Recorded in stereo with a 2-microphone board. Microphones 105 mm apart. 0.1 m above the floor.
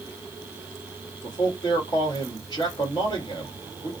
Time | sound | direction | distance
1.2 | a man speaking | 40° left (ahead or behind) | 2.5 m